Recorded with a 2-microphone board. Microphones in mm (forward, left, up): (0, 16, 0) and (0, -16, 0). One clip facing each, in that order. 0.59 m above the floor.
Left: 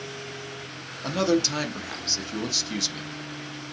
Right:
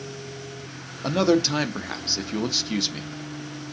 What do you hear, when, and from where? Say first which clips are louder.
1.0 s a man speaking: right 3 dB; 20° right (ahead or behind), 0.6 m